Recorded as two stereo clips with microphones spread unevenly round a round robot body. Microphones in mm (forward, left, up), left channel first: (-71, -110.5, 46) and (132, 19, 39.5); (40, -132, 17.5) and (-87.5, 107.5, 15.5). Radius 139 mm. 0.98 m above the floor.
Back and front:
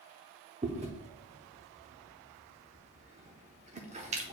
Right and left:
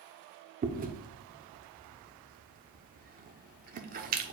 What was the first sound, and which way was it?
Chewing, 85° left.